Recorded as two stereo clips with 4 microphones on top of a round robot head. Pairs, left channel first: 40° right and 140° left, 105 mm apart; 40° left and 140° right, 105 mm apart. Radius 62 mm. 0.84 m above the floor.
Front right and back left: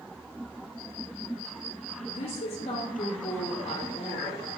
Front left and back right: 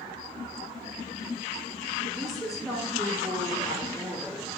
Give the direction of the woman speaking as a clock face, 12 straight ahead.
2 o'clock.